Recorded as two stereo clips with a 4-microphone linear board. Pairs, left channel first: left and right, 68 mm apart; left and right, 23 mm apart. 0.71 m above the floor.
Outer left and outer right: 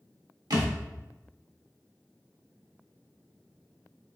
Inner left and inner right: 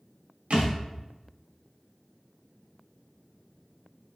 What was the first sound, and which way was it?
A thud, 80° right.